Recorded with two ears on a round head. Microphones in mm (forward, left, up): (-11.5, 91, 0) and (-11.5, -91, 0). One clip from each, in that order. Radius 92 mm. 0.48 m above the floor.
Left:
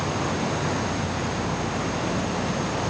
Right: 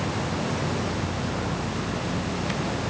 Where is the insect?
65° left (ahead or behind).